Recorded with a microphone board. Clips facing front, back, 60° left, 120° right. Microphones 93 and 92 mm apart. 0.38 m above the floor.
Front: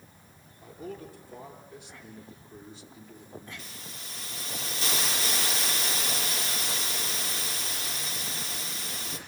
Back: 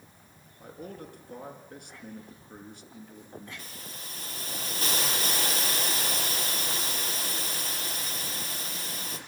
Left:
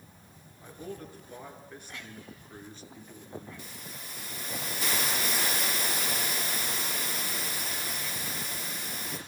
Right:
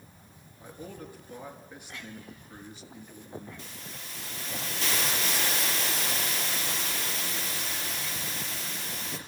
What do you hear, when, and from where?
0.6 s a man speaking: 160° left, 6 m
3.6 s a hiss: 140° left, 5.5 m